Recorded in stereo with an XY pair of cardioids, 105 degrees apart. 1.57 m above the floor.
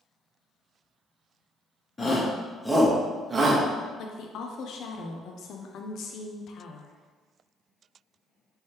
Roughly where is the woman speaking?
Left.